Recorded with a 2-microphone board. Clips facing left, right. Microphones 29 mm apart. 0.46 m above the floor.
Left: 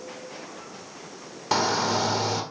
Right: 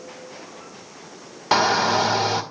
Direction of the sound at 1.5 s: 25° right (ahead or behind).